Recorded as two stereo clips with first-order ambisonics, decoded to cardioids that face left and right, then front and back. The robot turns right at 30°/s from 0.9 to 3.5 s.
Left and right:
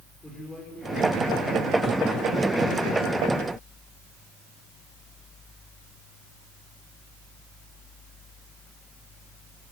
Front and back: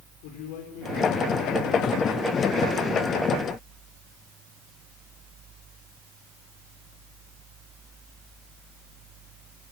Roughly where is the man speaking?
Ahead.